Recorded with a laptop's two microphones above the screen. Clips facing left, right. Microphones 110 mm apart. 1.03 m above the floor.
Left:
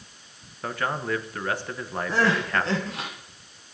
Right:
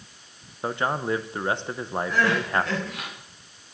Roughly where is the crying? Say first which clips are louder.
Left 1 dB; left.